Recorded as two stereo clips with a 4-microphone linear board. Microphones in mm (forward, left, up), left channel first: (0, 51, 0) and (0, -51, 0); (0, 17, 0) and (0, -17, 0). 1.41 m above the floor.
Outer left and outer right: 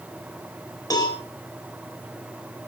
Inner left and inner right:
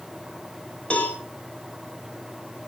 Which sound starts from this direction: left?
A cowbell, at 0.9 s.